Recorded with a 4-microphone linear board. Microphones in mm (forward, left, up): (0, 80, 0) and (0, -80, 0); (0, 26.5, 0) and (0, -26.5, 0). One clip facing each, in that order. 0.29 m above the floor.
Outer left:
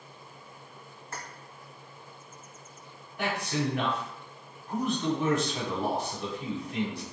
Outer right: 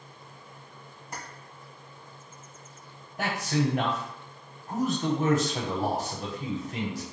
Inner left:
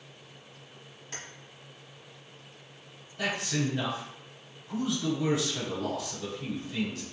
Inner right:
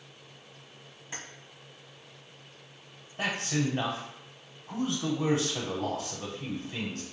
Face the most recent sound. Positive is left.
turn(degrees=-35)  # may be behind; listen again after turning